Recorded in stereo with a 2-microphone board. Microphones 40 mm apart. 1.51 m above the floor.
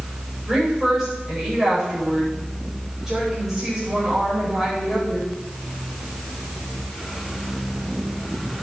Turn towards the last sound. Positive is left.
turn(degrees=-10)  # may be behind; listen again after turning